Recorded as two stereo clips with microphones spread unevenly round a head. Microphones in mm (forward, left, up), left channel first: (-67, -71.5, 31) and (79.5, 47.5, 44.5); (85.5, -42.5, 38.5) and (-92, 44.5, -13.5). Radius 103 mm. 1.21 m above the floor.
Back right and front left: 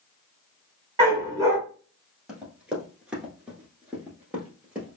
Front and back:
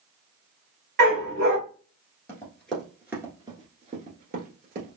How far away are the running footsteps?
About 1.3 m.